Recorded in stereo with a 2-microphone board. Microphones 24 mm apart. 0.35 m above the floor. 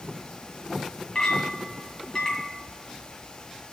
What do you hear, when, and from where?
1.1 s a clink: 30° left (ahead or behind), 2 m